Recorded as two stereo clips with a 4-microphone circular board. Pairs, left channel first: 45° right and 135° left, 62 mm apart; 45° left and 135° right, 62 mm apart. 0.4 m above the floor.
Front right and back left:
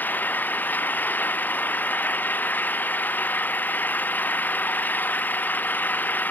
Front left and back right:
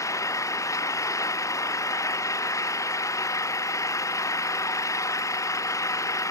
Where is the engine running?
15° left.